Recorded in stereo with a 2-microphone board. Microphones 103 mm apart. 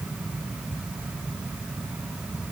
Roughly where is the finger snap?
No finger snap in this recording.